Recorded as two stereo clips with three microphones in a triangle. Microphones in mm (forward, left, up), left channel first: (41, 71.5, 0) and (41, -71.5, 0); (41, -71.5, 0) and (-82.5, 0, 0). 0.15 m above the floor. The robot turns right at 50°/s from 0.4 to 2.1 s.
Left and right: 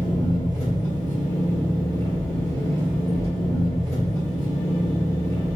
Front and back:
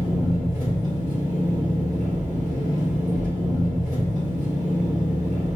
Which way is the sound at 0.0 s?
70° left.